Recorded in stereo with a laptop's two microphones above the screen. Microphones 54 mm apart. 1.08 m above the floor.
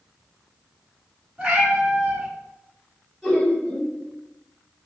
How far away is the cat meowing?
About 1.0 m.